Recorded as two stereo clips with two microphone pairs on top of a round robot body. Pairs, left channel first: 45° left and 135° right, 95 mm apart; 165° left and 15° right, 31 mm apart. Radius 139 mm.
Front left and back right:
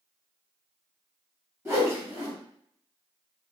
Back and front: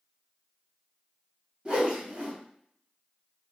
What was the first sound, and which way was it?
A whoosh, 75° right.